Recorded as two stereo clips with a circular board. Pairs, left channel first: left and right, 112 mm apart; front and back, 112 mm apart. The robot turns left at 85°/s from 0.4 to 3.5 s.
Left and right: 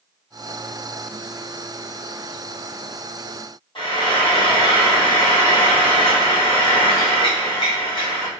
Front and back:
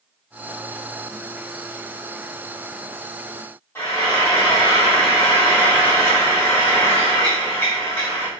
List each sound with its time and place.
3.8 s frying: 65° left, 1.6 m